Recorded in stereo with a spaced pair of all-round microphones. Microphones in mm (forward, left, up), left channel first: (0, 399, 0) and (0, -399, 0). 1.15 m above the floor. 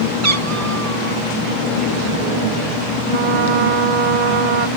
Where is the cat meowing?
70° right (ahead or behind).